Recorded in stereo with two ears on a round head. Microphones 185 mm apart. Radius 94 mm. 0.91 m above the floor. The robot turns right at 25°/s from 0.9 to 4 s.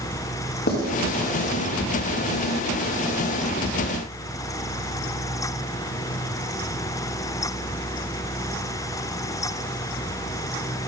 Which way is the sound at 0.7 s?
50° left (ahead or behind).